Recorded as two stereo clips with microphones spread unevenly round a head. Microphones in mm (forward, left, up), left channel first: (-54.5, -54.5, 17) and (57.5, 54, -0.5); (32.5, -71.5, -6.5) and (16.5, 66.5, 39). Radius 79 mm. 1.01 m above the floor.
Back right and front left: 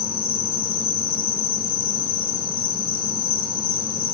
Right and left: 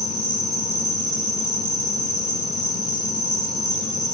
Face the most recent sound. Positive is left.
turn(degrees=-165)